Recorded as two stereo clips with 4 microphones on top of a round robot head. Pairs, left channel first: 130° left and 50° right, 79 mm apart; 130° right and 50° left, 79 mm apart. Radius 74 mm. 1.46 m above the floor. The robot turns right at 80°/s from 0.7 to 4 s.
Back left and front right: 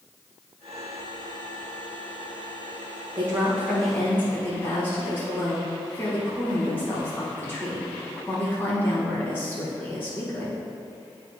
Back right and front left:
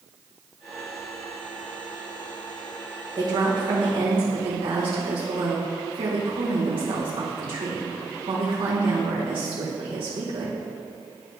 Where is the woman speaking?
Straight ahead, 2.5 m; by 10.6 s 65° left, 2.5 m.